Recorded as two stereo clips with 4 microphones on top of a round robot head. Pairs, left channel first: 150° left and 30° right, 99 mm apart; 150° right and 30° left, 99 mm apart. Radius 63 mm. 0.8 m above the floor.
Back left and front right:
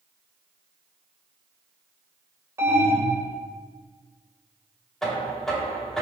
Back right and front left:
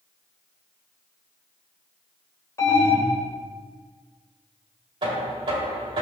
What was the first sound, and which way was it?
An alarm, 90° right.